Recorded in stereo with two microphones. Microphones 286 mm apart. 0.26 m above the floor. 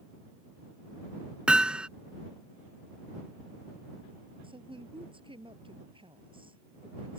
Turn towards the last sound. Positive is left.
turn(degrees=-20)  # may be behind; listen again after turning